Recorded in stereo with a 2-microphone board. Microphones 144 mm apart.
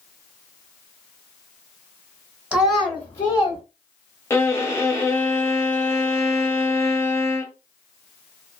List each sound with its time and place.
2.5 s a child speaking: 10° right (ahead or behind), 0.8 m; by 3.6 s 35° left (ahead or behind), 1.0 m
4.3 s a violin: 15° left (ahead or behind), 0.6 m